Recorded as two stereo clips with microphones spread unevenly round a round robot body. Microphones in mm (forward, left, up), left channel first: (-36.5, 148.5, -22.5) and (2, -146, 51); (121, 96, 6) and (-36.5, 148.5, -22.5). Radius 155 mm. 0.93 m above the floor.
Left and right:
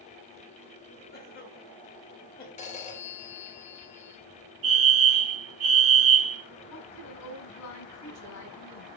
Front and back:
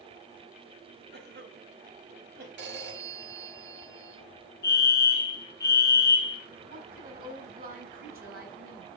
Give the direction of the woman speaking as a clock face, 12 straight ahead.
7 o'clock.